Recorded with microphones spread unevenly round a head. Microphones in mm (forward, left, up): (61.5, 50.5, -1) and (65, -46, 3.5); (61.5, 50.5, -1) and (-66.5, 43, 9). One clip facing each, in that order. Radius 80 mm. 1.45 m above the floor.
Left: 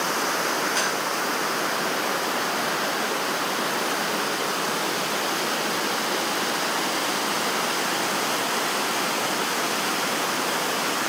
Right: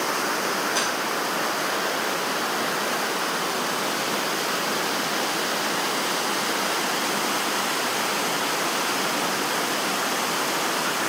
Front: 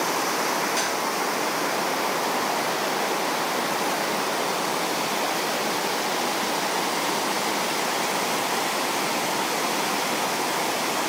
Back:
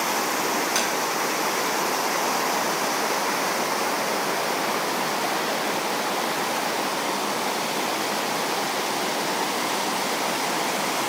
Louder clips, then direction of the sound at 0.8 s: Even, back 1 dB; 170° right.